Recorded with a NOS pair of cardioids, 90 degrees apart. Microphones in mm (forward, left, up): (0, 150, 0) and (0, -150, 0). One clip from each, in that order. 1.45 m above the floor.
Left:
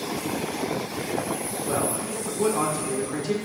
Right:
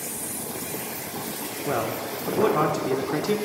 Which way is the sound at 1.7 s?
35° right.